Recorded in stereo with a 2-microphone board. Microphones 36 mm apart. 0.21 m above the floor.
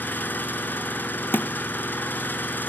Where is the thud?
85° left, 0.6 m.